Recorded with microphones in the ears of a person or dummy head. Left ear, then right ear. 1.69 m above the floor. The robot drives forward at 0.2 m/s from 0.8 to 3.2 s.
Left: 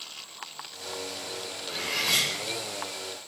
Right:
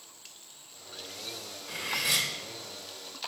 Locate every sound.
1.7 s cutlery clinking: 50° right (ahead or behind), 1.1 m